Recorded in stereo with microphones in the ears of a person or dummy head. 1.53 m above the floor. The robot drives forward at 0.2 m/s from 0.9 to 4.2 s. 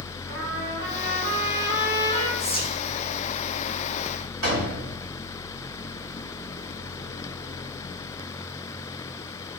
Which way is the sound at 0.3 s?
45° right (ahead or behind).